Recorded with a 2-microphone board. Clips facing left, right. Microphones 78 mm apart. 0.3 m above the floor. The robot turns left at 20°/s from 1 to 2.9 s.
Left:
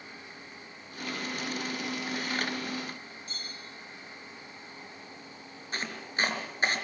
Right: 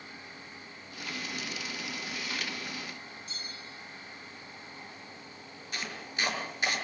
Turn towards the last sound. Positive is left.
turn(degrees=40)  # may be behind; listen again after turning